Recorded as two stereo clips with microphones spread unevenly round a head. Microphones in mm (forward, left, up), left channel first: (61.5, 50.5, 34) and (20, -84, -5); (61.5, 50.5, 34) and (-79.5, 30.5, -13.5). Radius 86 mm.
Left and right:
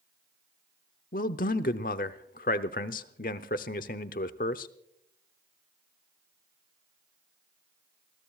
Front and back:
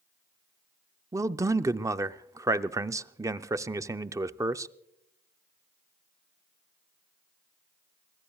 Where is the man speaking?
120° left, 0.6 m.